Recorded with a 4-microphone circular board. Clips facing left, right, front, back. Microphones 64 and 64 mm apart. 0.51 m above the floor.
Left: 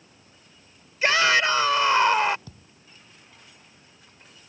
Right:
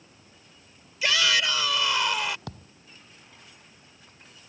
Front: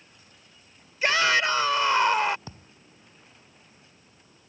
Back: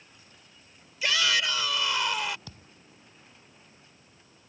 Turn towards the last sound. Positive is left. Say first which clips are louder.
# right 7 dB, front 4 dB
turn(degrees=-60)